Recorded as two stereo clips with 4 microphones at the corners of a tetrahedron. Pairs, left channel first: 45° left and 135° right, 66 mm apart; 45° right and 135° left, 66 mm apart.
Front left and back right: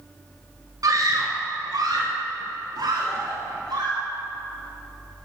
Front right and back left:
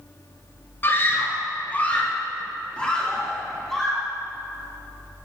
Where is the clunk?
No clunk in this recording.